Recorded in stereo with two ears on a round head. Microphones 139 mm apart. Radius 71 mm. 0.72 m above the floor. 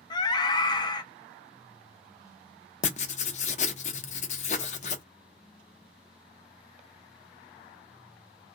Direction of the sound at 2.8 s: 45° left (ahead or behind).